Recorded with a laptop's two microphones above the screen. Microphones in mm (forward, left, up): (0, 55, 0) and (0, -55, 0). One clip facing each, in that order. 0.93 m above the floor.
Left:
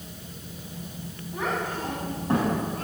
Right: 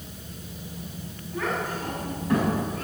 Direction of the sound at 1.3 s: 20° left (ahead or behind).